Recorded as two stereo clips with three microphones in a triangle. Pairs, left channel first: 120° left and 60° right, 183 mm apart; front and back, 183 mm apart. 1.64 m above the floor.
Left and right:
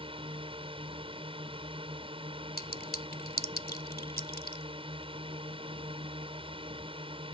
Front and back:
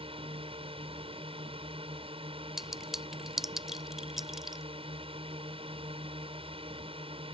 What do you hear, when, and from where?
0.0 s a drone: 120° right
2.6 s a clink: 90° left